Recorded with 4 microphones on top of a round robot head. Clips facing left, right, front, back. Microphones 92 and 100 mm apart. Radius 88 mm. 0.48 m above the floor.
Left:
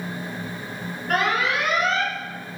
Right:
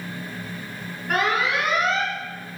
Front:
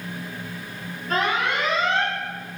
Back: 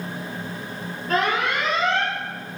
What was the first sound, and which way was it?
An alarm, 175° right.